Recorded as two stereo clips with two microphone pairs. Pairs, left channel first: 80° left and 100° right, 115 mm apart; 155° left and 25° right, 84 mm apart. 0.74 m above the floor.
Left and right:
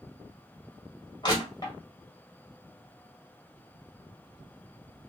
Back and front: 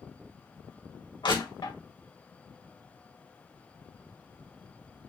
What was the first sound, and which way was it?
Crushing, 135° left.